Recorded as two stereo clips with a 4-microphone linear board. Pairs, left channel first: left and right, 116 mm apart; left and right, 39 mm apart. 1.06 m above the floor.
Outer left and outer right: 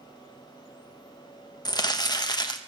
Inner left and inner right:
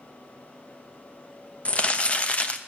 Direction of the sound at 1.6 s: 35° left (ahead or behind).